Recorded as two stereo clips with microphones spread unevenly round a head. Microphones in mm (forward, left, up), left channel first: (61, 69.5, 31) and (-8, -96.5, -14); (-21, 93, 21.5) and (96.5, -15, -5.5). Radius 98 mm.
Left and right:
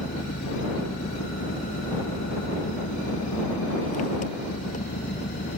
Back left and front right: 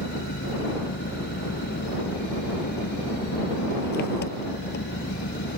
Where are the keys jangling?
No keys jangling in this recording.